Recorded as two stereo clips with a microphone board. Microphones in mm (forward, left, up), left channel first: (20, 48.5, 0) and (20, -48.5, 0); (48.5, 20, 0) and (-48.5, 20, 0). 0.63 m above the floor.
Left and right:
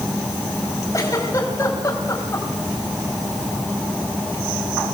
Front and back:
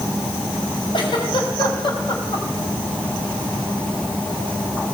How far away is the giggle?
About 4.5 m.